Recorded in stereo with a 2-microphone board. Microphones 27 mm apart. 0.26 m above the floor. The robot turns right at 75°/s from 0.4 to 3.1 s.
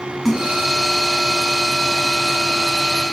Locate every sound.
0.2 s a splash: centre (ahead or behind), 1.2 m; by 0.6 s 10° left (ahead or behind), 1.2 m